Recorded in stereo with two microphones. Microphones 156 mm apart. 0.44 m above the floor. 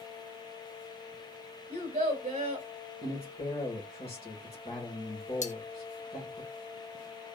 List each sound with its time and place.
1.7 s a child speaking: 45° right (ahead or behind), 1.0 m
3.0 s a man speaking: 40° left (ahead or behind), 1.6 m
5.4 s cutlery clinking: 50° left (ahead or behind), 0.6 m